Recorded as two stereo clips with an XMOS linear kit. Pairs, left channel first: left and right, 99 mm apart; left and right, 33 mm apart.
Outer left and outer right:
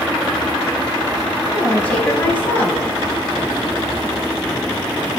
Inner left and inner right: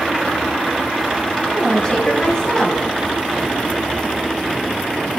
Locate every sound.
1.5 s a woman speaking: 20° left (ahead or behind), 3.5 m